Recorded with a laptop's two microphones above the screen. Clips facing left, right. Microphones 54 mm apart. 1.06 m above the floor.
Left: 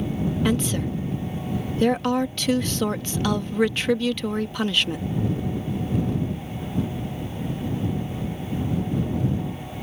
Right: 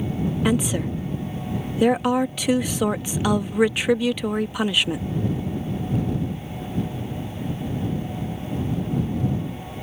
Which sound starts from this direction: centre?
A woman speaking, at 0.5 s.